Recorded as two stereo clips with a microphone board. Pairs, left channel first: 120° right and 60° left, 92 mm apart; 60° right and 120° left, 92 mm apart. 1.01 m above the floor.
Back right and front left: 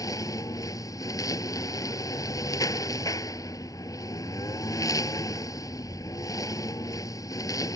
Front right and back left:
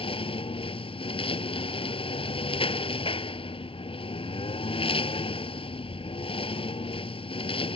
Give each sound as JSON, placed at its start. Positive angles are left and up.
{"t": 0.0, "sound": "a lawn mower", "azimuth_deg": -70}